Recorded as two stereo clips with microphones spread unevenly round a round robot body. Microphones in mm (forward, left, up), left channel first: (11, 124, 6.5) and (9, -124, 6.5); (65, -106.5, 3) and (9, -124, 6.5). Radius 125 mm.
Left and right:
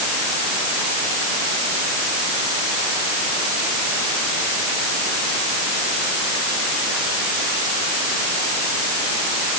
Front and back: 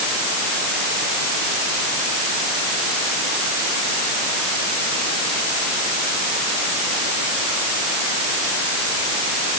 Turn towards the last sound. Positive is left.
No sound to turn to.